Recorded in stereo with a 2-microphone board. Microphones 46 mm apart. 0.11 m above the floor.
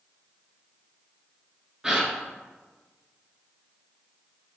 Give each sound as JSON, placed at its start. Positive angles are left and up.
{"t": 1.8, "sound": "a gasp", "side_deg": -15, "distance_m": 0.7}